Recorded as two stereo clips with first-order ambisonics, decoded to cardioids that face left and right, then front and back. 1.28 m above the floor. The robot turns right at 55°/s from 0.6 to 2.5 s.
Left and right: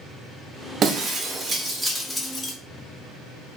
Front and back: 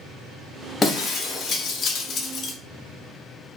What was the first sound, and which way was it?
Breaking glass, 65° right.